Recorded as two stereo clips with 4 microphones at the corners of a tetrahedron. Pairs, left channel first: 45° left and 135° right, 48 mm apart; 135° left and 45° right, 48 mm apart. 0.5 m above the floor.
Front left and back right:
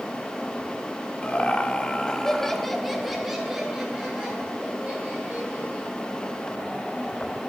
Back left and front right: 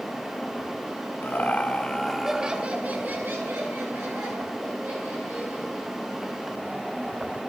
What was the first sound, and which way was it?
Laughter, 100° left.